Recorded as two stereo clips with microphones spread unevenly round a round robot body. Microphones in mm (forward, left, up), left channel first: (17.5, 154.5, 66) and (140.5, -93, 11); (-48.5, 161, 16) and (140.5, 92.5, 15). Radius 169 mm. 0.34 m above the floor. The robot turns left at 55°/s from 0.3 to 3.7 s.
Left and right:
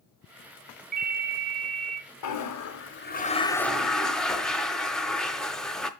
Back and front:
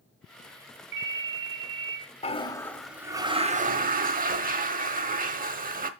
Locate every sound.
0.9 s a ringtone: 5° right, 1.8 m; by 2.0 s 65° right, 1.8 m
2.2 s a toilet flushing: 105° left, 1.0 m; by 5.9 s 25° left, 1.0 m